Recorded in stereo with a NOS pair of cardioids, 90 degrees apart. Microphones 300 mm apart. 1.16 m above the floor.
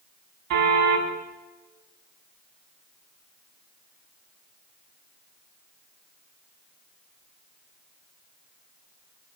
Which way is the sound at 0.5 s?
70° right.